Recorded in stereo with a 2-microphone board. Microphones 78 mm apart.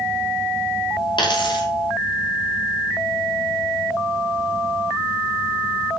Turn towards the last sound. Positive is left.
turn(degrees=85)